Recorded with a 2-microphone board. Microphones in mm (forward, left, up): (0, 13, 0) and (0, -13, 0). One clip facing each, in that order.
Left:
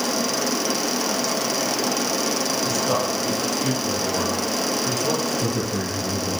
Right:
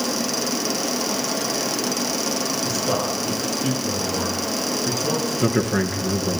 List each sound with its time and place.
2.6 s a man speaking: 10° right (ahead or behind), 7.5 m
5.4 s a man speaking: 60° right (ahead or behind), 3.5 m